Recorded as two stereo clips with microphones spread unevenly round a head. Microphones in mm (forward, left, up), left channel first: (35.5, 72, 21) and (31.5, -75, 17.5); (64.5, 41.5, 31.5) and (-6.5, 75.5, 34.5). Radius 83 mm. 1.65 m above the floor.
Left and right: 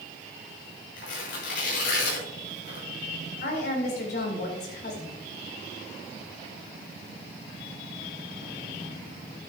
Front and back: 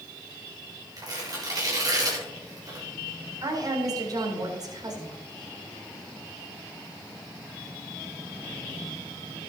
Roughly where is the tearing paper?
Behind left.